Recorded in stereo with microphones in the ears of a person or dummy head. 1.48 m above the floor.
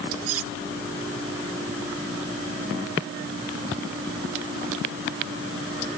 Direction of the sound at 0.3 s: 75° right (ahead or behind).